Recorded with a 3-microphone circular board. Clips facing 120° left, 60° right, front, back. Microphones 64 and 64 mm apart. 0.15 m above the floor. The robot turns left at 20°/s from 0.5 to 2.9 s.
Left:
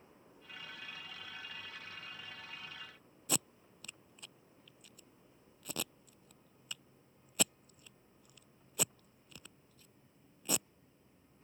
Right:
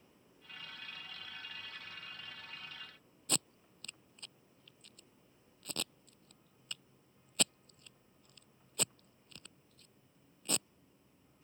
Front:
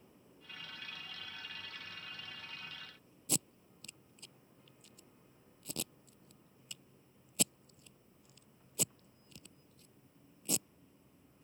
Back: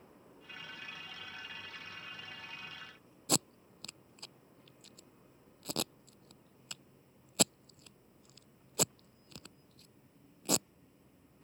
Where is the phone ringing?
No phone ringing in this recording.